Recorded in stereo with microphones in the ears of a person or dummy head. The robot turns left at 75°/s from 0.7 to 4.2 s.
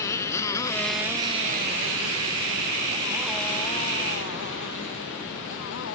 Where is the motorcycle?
15° left (ahead or behind); by 6.0 s 65° left (ahead or behind).